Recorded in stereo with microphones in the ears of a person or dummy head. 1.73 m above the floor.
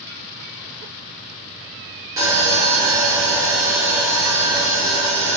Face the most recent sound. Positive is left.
turn(degrees=-20)  # may be behind; listen again after turning